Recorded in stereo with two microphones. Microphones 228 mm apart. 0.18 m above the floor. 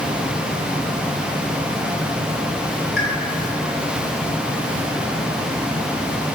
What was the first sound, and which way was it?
A pop, 60° left (ahead or behind).